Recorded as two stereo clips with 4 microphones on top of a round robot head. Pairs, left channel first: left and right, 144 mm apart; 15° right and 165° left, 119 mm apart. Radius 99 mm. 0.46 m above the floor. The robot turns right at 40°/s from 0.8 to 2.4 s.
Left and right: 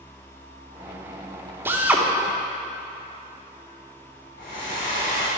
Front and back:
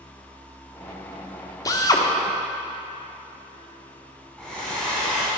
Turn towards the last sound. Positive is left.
turn(degrees=70)